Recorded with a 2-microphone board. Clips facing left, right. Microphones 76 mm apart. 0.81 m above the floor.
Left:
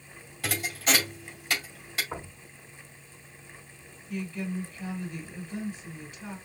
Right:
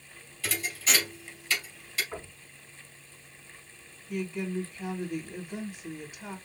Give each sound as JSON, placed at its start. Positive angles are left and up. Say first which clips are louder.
{"t": 0.4, "sound": "a thud", "louder": "left 3 dB", "side_deg": 55, "distance_m": 3.0}
{"t": 2.1, "sound": "knocking", "louder": "left 2 dB", "side_deg": 55, "distance_m": 4.0}
{"t": 4.1, "sound": "a woman speaking", "louder": "right 1 dB", "side_deg": -20, "distance_m": 2.0}